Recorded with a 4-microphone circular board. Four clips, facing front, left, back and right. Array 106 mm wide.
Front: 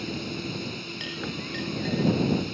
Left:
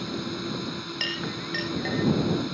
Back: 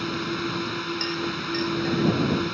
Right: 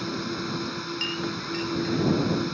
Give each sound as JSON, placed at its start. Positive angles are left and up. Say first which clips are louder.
{"t": 0.0, "sound": "a drone", "louder": "right 1 dB, back 5 dB", "azimuth_deg": -170}
{"t": 1.0, "sound": "a clink", "louder": "even, back 6 dB", "azimuth_deg": 105}